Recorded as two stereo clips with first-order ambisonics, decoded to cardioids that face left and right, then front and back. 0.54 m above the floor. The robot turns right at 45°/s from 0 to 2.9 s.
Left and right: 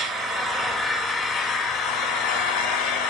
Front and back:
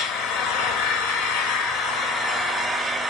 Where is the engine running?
30° right, 1.7 m; by 3.1 s 100° left, 1.7 m.